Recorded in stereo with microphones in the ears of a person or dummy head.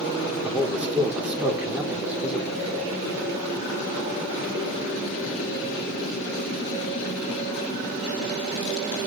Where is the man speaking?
5° right (ahead or behind), 2.5 m.